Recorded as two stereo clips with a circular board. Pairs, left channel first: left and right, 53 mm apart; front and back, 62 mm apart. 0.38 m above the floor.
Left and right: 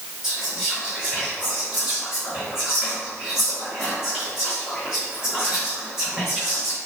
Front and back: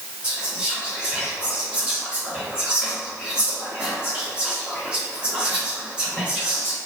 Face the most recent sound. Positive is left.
turn(degrees=-140)